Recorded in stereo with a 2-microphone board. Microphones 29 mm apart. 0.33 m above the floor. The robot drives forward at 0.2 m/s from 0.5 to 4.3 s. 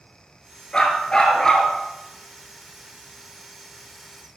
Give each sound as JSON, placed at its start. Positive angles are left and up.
{"t": 0.7, "sound": "a dog barking", "side_deg": 25, "distance_m": 1.5}